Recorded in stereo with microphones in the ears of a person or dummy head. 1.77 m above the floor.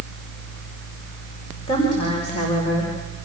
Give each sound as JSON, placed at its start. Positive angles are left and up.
{"t": 1.7, "sound": "a woman speaking", "side_deg": 30, "distance_m": 5.5}